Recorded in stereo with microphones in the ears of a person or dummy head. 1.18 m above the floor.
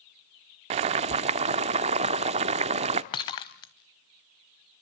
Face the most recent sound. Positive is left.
turn(degrees=20)  # may be behind; listen again after turning